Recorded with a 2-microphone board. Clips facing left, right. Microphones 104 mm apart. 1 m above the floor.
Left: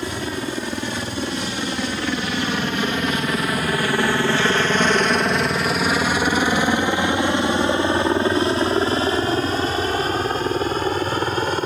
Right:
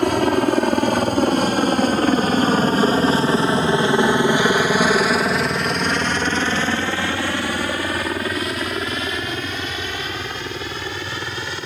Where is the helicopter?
60° right (ahead or behind); by 11.7 s 40° left (ahead or behind).